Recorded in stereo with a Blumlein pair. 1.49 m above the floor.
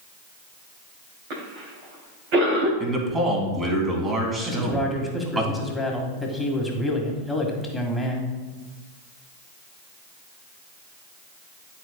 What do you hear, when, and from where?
1.3 s a cough: 45° right, 2.5 m
2.8 s a man speaking: 15° right, 2 m
4.5 s a man speaking: 5° left, 1.7 m